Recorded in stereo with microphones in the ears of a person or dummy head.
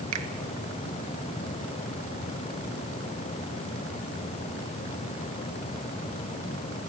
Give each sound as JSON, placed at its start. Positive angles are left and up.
{"t": 0.1, "sound": "a finger snap", "side_deg": -80, "distance_m": 1.6}